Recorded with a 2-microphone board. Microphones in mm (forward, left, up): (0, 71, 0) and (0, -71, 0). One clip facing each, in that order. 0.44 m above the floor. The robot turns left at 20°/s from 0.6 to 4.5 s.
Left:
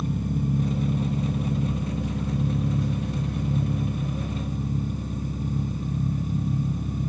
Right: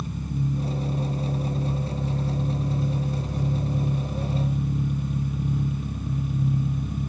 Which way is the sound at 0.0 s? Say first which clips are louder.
Left 3 dB; 120° left.